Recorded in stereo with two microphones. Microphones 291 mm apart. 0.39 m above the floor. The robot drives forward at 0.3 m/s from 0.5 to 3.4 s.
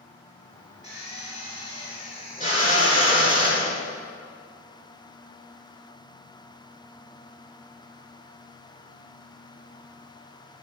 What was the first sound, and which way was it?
A drill, 25° left (ahead or behind).